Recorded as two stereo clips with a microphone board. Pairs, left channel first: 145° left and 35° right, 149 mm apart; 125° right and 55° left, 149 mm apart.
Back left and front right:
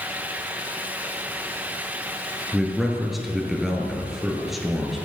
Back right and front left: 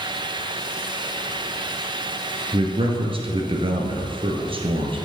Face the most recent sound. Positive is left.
turn(degrees=55)